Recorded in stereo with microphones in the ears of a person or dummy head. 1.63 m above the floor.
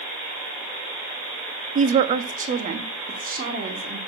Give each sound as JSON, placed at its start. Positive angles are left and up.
{"t": 1.8, "sound": "a woman speaking", "side_deg": -45, "distance_m": 0.6}